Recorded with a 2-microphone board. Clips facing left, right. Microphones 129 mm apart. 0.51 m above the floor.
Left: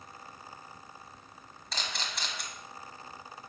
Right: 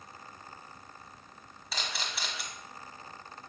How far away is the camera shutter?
About 1.5 m.